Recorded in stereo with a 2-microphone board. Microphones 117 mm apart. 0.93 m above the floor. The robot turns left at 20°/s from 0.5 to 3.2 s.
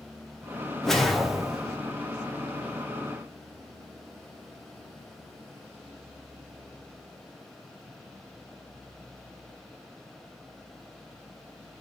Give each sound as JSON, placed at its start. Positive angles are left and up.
{"t": 0.8, "sound": "a whoosh", "side_deg": 5, "distance_m": 0.5}